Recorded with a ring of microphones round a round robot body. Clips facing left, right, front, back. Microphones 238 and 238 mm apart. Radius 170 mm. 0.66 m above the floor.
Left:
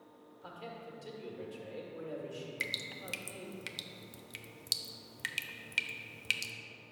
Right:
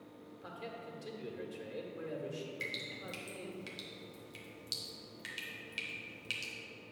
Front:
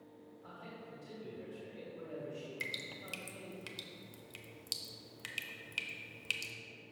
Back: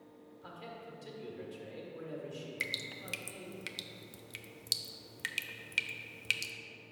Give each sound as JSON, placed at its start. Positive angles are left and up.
{"t": 0.4, "sound": "a man speaking", "azimuth_deg": -160, "distance_m": 1.7}
{"t": 2.6, "sound": "dripping", "azimuth_deg": 110, "distance_m": 0.6}